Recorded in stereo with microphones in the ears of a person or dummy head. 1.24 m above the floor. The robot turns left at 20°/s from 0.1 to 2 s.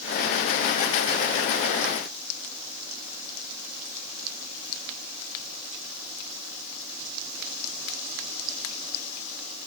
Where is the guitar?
No guitar in this recording.